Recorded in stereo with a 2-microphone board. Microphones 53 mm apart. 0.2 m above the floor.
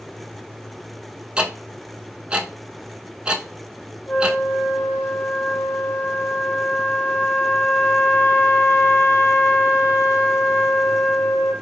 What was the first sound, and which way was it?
Ticking, 20° right (ahead or behind).